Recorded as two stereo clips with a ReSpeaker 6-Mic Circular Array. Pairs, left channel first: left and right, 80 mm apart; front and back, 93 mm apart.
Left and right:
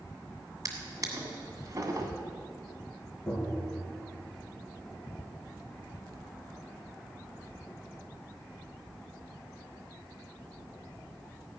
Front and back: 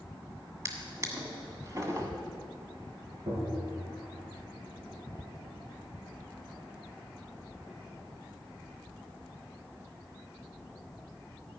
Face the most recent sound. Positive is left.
turn(degrees=170)